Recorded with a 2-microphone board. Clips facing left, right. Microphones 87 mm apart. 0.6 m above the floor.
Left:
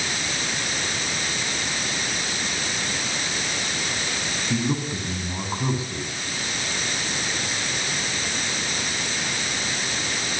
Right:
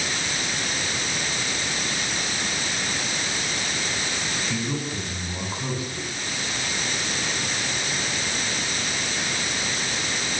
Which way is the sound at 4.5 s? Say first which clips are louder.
Left 6 dB; 25° left (ahead or behind).